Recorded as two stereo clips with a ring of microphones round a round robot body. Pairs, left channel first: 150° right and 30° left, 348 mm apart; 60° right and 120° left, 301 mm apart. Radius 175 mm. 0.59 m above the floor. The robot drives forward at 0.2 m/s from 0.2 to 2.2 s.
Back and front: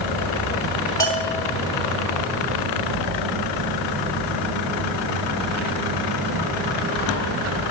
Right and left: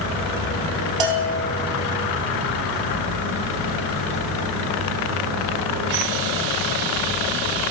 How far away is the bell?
About 1.1 m.